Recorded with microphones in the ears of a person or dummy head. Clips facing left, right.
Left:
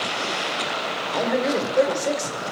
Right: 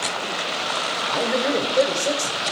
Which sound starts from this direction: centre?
A man speaking, at 1.1 s.